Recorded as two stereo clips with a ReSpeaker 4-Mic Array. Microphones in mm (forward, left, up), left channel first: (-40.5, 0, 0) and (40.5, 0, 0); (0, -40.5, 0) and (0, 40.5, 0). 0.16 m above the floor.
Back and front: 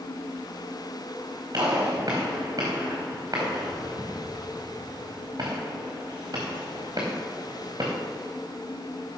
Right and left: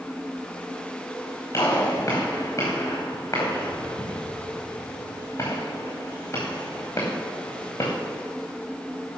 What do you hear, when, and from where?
1.5 s a gunshot: 40° right, 4.5 m